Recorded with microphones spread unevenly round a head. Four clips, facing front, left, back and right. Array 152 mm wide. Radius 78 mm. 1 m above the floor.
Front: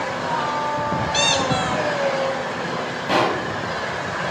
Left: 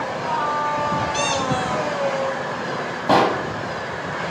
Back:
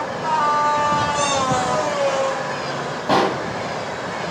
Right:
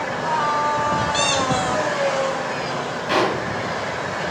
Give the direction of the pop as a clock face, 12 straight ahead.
8 o'clock.